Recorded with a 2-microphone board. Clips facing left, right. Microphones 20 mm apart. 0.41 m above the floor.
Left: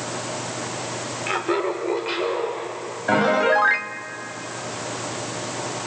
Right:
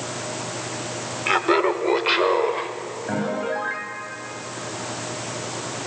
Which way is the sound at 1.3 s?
20° right (ahead or behind).